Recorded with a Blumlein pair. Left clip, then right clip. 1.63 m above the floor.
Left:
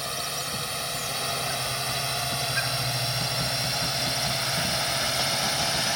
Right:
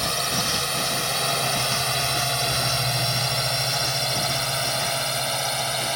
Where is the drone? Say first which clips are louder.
Right 7 dB; 20° right; by 6.0 s 10° right.